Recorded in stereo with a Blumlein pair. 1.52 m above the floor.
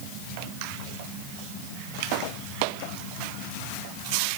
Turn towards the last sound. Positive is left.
No sound to turn to.